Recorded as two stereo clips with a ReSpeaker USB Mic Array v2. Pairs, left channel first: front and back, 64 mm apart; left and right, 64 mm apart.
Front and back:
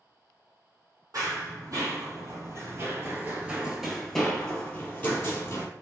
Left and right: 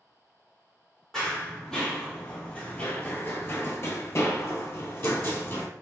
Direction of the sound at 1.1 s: 175° left.